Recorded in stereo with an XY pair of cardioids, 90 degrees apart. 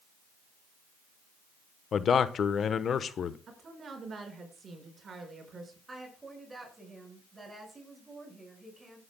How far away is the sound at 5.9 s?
About 6 m.